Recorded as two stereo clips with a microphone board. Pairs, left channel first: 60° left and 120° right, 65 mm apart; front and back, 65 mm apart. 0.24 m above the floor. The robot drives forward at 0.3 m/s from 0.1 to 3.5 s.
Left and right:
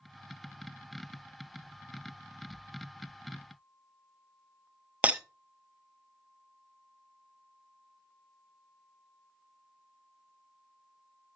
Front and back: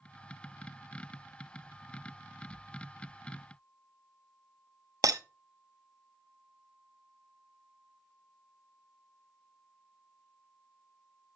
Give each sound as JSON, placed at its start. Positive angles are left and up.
{"t": 5.0, "sound": "breaking glass", "azimuth_deg": 175, "distance_m": 0.6}